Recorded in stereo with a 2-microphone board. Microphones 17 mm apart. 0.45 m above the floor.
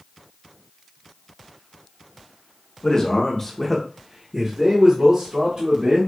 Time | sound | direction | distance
2.8 | a man speaking | 45° left (ahead or behind) | 1.0 m